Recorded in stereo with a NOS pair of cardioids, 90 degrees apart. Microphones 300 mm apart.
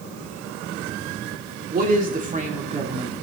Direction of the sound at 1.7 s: 30° right.